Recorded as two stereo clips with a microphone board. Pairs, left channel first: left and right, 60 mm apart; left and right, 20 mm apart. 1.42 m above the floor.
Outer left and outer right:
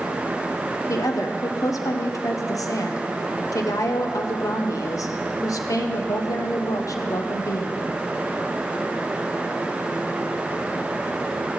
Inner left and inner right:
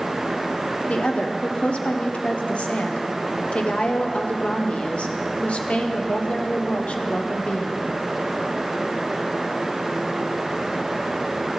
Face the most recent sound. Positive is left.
turn(degrees=75)  # may be behind; listen again after turning